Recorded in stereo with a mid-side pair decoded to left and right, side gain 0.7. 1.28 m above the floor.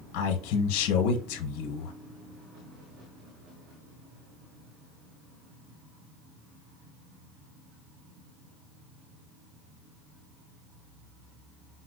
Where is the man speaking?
70° left, 0.9 m.